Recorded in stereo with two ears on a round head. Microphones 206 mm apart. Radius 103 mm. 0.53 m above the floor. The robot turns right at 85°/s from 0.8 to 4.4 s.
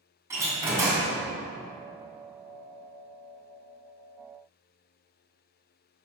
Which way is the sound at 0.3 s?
10° right (ahead or behind).